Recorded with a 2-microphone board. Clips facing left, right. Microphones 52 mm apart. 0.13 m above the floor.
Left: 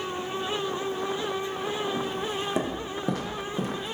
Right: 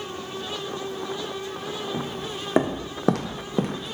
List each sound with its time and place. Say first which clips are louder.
1.9 s footsteps: left 2 dB; 25° right (ahead or behind), 0.9 m; by 3.9 s 45° right (ahead or behind), 0.8 m